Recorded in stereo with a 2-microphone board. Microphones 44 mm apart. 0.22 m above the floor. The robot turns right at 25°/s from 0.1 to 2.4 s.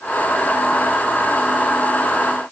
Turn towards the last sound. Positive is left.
No sound to turn to.